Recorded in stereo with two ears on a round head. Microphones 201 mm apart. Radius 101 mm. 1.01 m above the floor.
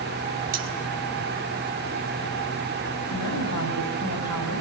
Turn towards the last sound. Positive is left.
turn(degrees=85)